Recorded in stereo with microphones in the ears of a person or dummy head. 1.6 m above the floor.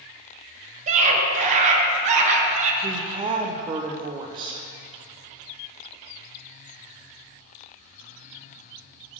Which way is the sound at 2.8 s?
25° right (ahead or behind).